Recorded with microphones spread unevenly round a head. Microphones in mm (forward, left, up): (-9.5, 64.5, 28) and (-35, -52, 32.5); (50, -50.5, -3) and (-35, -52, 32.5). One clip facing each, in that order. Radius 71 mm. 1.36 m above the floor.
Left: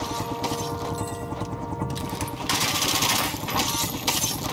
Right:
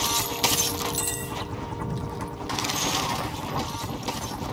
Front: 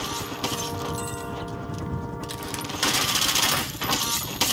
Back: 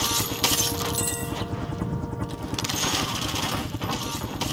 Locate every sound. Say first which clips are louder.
0.0 s a helicopter: even, back 2 dB; 120° left